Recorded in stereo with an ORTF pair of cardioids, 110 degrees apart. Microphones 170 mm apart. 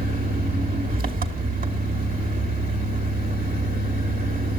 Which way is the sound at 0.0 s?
60° right.